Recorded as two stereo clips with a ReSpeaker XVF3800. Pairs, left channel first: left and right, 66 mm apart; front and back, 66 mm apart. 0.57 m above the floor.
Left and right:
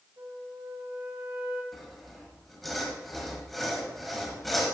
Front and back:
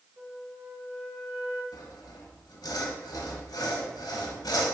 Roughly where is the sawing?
Ahead.